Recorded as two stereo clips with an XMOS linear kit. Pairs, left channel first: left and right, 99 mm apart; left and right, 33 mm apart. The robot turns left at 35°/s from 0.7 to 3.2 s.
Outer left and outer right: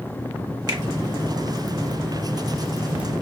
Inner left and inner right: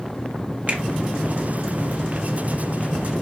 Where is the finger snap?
45° right (ahead or behind), 1.3 m; by 0.8 s 40° right (ahead or behind), 1.3 m.